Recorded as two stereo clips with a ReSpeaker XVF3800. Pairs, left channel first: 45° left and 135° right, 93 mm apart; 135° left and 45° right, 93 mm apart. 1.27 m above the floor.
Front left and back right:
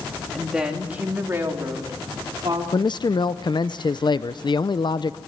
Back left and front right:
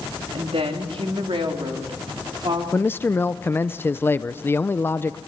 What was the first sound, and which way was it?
A woman speaking, 50° right.